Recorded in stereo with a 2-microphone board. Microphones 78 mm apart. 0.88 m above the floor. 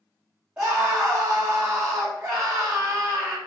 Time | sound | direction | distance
0.6 | a scream | 15° right (ahead or behind) | 1.2 m